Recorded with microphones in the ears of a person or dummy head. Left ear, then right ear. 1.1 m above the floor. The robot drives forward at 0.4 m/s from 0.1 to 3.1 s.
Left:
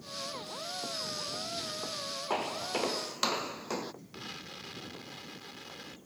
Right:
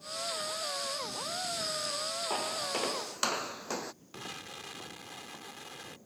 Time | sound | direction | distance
2.3 | footsteps | 5° right (ahead or behind) | ?
4.1 | an explosion | 25° right (ahead or behind) | ?